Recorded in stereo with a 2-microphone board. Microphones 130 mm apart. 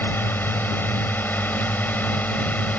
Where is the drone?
15° left (ahead or behind); by 2.8 s 10° left (ahead or behind).